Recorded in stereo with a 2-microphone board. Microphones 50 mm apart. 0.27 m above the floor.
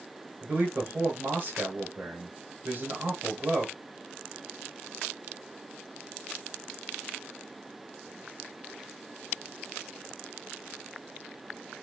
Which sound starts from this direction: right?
A man speaking, at 0.4 s.